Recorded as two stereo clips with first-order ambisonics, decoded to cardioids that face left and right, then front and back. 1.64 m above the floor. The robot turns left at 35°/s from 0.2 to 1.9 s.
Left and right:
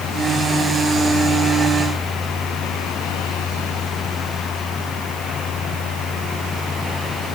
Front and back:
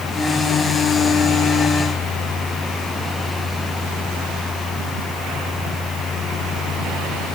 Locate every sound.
Only background noise.